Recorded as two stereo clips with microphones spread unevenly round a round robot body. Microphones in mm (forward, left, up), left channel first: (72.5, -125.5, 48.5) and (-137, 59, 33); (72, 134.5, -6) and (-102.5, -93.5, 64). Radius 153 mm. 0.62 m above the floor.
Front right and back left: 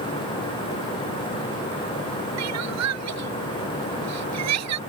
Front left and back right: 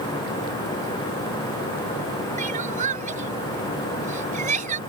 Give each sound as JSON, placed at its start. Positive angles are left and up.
{"t": 2.4, "sound": "crying", "azimuth_deg": 170}